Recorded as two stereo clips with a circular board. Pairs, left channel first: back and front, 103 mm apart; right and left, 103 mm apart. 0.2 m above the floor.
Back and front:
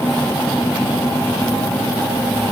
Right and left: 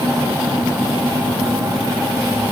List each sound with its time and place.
Only background noise.